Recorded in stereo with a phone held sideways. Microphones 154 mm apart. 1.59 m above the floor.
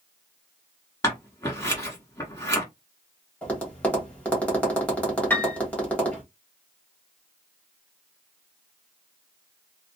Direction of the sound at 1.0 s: 20° left (ahead or behind).